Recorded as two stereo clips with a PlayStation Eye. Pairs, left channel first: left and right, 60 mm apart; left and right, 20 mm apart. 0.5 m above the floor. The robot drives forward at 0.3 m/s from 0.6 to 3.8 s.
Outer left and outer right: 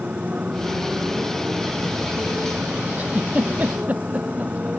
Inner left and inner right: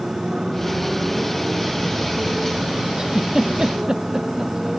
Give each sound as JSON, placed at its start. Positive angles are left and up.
{"t": 0.0, "sound": "a motorcycle", "side_deg": -25}
{"t": 3.0, "sound": "a giggle", "side_deg": -30}